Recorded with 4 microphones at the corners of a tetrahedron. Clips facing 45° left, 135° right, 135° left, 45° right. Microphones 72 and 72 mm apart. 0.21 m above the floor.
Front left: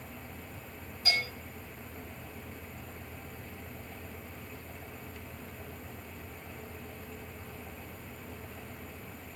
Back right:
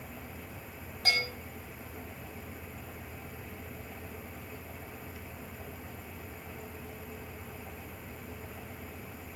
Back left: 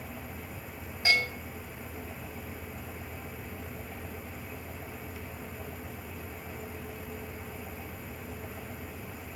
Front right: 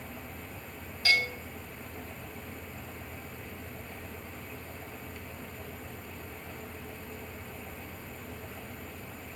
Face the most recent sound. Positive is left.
turn(degrees=-160)